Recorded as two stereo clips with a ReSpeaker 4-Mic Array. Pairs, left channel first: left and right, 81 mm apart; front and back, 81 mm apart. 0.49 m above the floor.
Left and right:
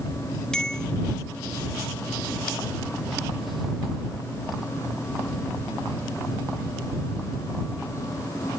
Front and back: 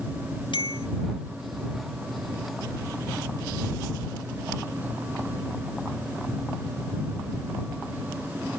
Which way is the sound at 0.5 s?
10° left.